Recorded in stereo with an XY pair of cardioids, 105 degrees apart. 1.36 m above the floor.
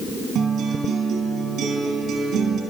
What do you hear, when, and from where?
0.3 s a guitar: 70° right, 5 m